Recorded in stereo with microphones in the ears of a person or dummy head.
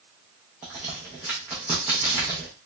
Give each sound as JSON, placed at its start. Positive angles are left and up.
{"t": 0.6, "sound": "a crack", "side_deg": -10, "distance_m": 0.5}